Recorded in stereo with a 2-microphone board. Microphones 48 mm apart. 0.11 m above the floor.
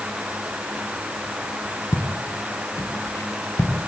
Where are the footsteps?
85° left, 3.5 m; by 3.9 s 90° left, 4.5 m.